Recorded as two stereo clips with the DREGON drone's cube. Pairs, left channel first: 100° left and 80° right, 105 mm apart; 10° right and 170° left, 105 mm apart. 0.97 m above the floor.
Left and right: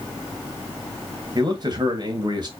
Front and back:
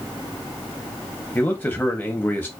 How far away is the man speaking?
About 1.1 m.